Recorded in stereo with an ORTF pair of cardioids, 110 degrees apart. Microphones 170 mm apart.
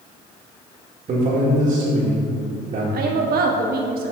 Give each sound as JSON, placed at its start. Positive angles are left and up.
{"t": 1.1, "sound": "a man speaking", "azimuth_deg": -45, "distance_m": 1.4}
{"t": 2.9, "sound": "a woman speaking", "azimuth_deg": -65, "distance_m": 1.1}